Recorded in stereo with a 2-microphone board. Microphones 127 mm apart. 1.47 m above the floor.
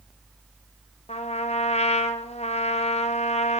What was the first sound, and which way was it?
A trumpet, 60° left (ahead or behind).